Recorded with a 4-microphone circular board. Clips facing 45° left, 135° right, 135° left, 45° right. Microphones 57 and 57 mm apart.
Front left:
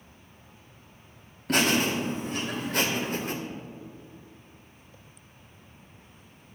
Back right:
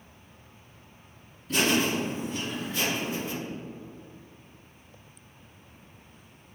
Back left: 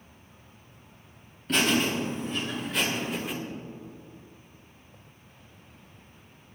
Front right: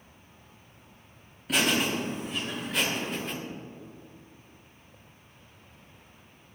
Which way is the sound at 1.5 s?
40° left.